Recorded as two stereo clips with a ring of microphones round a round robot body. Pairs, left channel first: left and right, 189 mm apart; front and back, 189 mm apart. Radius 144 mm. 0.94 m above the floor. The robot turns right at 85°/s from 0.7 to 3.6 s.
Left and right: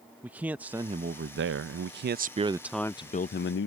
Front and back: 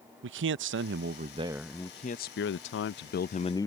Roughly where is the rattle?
No rattle in this recording.